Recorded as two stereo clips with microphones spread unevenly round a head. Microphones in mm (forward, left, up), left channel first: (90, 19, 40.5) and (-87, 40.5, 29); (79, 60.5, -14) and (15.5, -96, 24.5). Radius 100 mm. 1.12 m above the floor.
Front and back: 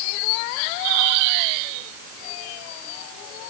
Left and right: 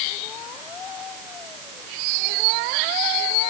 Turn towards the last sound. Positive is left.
No sound to turn to.